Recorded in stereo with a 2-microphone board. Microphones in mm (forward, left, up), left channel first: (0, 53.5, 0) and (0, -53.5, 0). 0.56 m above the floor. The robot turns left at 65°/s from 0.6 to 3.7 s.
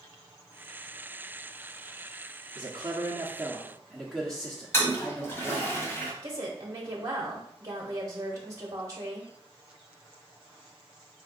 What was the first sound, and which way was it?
A man speaking, 105° right.